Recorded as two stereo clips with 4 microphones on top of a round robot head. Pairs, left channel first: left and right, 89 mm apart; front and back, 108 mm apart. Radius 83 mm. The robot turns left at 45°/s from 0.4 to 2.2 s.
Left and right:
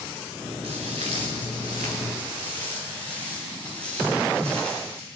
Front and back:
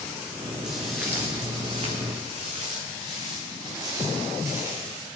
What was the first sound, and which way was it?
Footsteps, 85° right.